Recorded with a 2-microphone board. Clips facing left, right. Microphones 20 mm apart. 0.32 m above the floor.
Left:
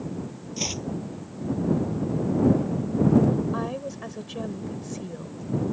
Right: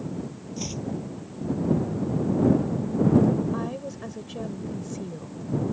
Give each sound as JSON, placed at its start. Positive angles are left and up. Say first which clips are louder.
{"t": 0.6, "sound": "chopping", "louder": "left 4 dB", "side_deg": 35}
{"t": 3.5, "sound": "a woman speaking", "louder": "left 1 dB", "side_deg": 15}